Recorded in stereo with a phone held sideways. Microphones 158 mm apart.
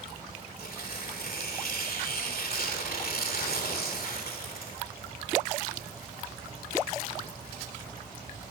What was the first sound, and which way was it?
Tearing paper, 70° left (ahead or behind).